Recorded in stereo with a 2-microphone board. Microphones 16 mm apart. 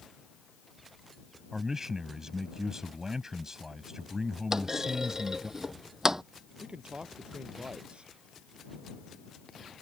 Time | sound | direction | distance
1.5 | a man speaking | 30° right (ahead or behind) | ?
4.5 | a clunk | 35° right (ahead or behind) | ?
6.6 | a man speaking | 75° right (ahead or behind) | ?